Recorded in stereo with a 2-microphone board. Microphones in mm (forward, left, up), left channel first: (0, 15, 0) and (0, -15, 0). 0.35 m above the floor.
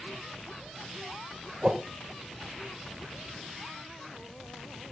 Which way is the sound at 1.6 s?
30° right (ahead or behind).